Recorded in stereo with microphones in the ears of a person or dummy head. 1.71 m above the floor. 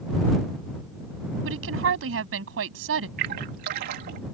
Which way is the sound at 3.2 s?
55° right (ahead or behind).